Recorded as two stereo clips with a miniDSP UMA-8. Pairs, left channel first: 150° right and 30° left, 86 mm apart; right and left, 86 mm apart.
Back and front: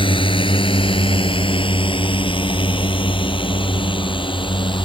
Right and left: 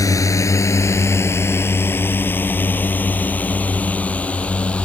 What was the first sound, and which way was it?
A drone, 140° right.